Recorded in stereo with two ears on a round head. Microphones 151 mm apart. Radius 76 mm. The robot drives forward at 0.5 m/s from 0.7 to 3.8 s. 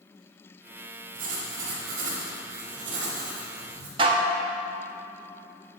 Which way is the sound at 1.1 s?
80° right.